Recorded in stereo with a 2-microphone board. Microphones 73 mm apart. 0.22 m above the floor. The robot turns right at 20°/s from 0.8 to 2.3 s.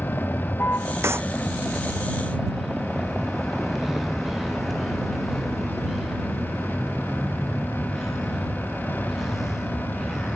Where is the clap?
40° right (ahead or behind); by 1.3 s 35° right (ahead or behind).